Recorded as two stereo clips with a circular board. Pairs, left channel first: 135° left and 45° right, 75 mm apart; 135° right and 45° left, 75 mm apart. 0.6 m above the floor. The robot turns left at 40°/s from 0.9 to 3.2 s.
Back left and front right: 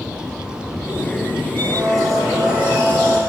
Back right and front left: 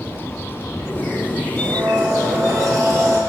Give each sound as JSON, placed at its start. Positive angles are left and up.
{"t": 1.6, "sound": "a blender", "azimuth_deg": 65, "distance_m": 4.0}